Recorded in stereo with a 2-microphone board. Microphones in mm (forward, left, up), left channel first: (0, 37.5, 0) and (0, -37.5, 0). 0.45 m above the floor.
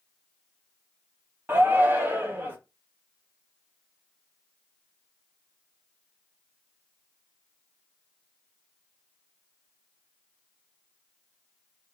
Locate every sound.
1.5 s a shout: 25° right (ahead or behind), 0.8 m